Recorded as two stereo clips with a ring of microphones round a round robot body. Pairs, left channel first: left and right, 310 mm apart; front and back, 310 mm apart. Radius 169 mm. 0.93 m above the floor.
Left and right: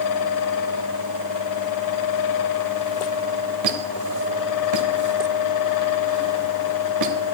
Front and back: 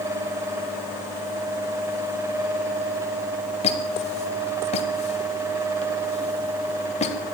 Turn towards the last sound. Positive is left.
turn(degrees=-70)